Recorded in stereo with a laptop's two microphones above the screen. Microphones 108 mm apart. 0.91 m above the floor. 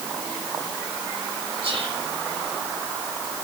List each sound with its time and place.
1.6 s whispering: 65° right (ahead or behind), 3.5 m